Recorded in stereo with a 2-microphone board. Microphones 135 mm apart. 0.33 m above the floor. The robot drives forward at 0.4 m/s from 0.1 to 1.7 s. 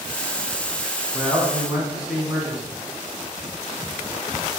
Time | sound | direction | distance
1.1 | a man speaking | 5° right (ahead or behind) | 3 m